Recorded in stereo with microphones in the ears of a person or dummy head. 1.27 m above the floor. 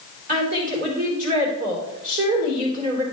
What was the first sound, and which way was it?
A woman speaking, 40° right (ahead or behind).